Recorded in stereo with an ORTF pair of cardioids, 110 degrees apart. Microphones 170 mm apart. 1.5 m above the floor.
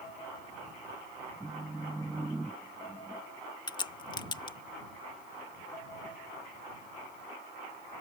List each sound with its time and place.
1.4 s a phone buzzing: 5° right
3.7 s a crack: 25° left